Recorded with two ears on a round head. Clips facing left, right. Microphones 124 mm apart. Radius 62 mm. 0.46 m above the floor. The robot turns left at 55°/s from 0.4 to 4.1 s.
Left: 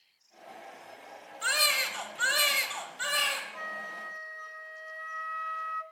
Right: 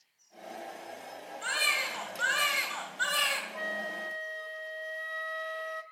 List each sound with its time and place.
1.4 s a baby crying: 100° left, 2 m; by 3.4 s 10° right, 2 m
3.5 s a flute: 60° right, 0.6 m; by 5.8 s 90° right, 0.6 m